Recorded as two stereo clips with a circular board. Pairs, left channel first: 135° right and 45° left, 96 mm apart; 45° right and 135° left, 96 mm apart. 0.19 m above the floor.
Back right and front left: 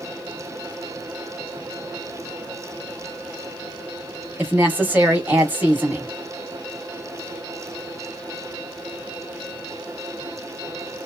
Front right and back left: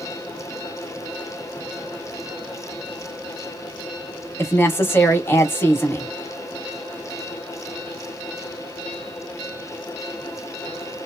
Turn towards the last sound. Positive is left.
turn(degrees=-10)